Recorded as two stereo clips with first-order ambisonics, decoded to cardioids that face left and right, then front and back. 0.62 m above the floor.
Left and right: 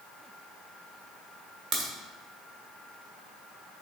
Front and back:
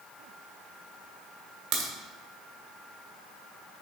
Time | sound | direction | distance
1.7 | a crack | 160° right | 1.4 m